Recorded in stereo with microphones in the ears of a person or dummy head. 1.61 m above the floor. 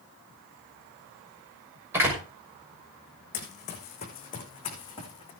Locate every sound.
1.9 s a door slam: 15° right (ahead or behind), 6 m
3.3 s running footsteps: 35° left (ahead or behind), 4 m; by 5.3 s 20° left (ahead or behind), 5 m